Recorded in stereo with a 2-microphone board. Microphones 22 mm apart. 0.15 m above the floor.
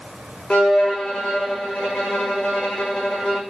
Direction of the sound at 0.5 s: 75° left (ahead or behind).